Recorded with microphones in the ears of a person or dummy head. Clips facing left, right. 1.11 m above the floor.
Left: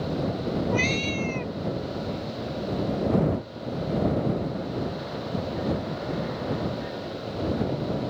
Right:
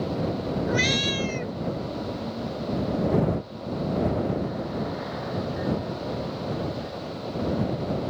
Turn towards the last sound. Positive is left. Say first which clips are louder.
# even
turn(degrees=-15)  # may be behind; listen again after turning